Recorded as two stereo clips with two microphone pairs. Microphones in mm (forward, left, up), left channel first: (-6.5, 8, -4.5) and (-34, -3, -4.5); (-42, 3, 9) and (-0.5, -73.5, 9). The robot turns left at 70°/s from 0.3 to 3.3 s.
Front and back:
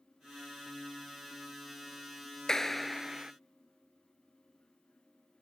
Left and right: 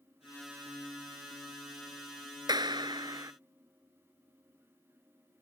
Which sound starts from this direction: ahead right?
A clap, at 2.5 s.